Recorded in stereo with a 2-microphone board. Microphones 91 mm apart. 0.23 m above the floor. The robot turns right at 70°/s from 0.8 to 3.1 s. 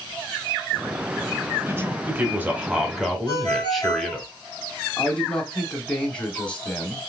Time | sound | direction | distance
1.7 | a man speaking | 25° right (ahead or behind) | 1.3 m
3.3 | a ringtone | 30° left (ahead or behind) | 2 m
5.0 | a man speaking | 10° left (ahead or behind) | 1.1 m